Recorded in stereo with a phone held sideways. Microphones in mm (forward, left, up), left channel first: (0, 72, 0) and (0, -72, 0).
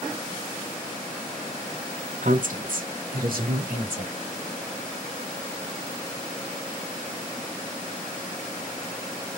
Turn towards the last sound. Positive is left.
turn(degrees=-85)